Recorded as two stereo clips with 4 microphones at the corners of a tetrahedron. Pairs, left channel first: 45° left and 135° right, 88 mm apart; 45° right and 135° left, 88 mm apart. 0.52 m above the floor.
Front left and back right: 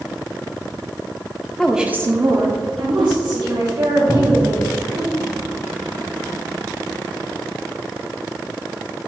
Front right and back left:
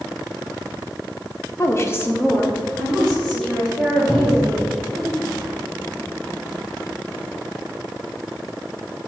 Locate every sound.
1.6 s a woman speaking: 35° right, 0.8 m; by 5.1 s 135° right, 4 m
4.1 s a cupboard door: straight ahead, 2 m